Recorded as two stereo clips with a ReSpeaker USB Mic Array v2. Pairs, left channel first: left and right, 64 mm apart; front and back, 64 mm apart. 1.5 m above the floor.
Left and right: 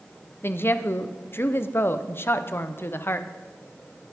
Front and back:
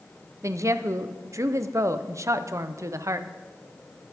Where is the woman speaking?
145° left, 0.7 m.